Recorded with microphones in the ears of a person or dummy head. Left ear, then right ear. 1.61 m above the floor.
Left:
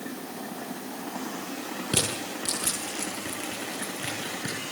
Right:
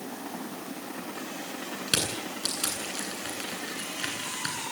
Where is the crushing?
50° right (ahead or behind), 9 m.